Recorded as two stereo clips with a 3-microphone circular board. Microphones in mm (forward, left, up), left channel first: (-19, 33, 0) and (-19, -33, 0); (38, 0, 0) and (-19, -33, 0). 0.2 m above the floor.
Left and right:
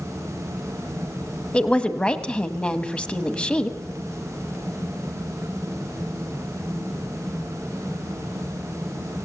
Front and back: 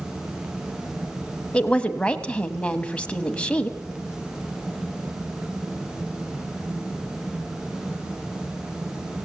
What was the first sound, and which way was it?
A woman speaking, 60° left.